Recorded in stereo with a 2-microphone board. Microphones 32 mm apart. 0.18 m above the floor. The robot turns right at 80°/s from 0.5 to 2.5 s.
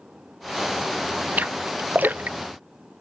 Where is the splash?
55° right (ahead or behind); by 2.4 s 45° right (ahead or behind).